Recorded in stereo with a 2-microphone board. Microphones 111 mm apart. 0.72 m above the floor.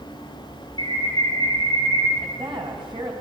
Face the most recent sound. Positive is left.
turn(degrees=-45)  # may be behind; listen again after turning